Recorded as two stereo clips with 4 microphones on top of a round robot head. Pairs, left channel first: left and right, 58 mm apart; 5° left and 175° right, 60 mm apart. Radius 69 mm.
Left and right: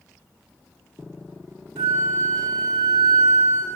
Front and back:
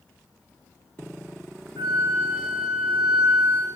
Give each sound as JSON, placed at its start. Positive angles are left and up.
{"t": 1.8, "sound": "a flute", "azimuth_deg": -125, "distance_m": 0.9}